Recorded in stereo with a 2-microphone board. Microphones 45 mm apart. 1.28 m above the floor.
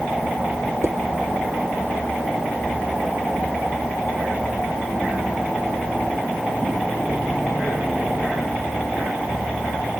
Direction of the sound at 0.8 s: 80° right.